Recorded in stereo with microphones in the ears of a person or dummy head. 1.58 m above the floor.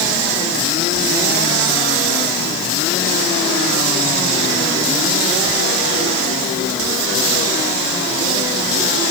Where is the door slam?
I don't hear a door slam.